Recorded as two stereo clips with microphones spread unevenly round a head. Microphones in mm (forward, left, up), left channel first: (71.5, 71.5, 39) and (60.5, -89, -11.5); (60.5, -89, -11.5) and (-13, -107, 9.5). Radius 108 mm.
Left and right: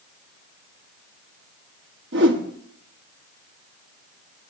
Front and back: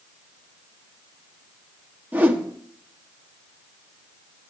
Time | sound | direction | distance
2.1 | a whoosh | 105° right | 1.6 m